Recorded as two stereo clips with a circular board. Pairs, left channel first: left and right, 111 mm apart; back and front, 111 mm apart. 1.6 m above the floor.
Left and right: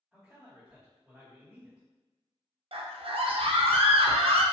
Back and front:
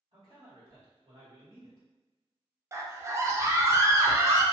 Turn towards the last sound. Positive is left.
turn(degrees=-65)